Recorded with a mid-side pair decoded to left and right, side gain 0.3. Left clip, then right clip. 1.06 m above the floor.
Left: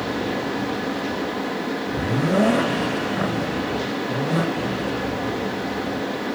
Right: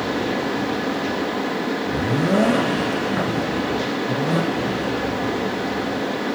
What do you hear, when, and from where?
0.0 s a fan: 25° right, 1.0 m